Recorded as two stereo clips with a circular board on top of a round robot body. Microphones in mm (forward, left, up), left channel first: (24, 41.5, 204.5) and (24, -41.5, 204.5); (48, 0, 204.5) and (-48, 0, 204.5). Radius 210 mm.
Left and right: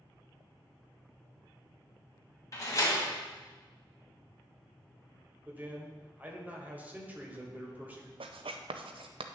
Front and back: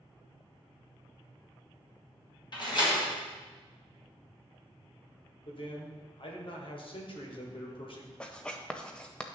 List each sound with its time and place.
2.5 s a door slam: 40° left, 2.5 m
5.5 s a man speaking: 20° right, 1.9 m
8.2 s writing: 80° right, 0.5 m